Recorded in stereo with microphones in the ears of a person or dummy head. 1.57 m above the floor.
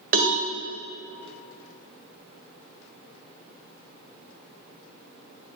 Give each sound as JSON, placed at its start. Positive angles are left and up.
{"t": 0.1, "sound": "a cowbell", "side_deg": -45, "distance_m": 1.4}